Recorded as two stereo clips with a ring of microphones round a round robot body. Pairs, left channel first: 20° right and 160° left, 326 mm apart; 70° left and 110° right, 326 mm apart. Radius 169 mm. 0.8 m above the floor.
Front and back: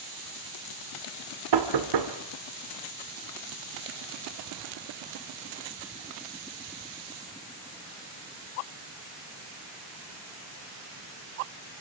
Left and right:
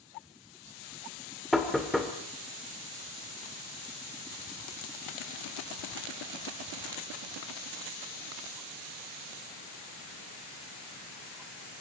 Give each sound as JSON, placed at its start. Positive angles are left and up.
{"t": 1.5, "sound": "knocking", "azimuth_deg": 155, "distance_m": 2.5}